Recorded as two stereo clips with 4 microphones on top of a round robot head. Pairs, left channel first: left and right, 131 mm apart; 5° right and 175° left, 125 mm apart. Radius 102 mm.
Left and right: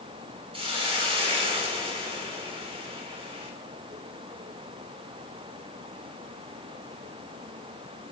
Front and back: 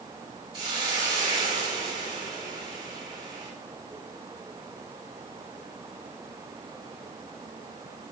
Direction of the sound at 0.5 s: 130° right.